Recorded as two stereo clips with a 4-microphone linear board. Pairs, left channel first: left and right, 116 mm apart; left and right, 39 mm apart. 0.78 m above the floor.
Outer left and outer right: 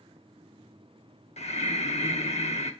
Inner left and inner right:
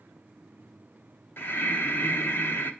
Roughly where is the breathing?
Left.